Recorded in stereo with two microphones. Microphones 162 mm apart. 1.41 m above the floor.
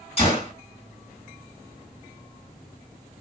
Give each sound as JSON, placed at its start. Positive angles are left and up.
{"t": 0.2, "sound": "a gunshot", "side_deg": 40, "distance_m": 2.0}